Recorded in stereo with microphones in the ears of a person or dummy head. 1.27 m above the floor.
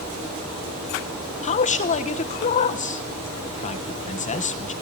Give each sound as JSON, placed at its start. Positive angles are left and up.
{"t": 1.4, "sound": "a man speaking", "side_deg": 40, "distance_m": 1.2}